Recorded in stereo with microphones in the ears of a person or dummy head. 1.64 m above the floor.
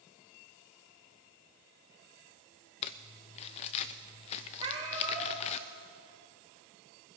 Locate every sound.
2.8 s crumpling: 30° left (ahead or behind), 0.5 m
4.6 s a cat meowing: 30° right (ahead or behind), 5.5 m